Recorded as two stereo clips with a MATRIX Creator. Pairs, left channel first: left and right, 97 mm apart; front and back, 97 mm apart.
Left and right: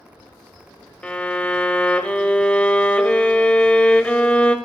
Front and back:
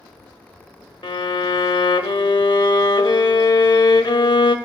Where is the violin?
15° left, 0.7 m.